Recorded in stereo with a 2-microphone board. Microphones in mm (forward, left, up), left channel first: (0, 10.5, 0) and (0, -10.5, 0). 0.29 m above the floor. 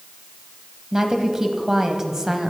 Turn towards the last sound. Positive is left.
turn(degrees=-25)  # may be behind; listen again after turning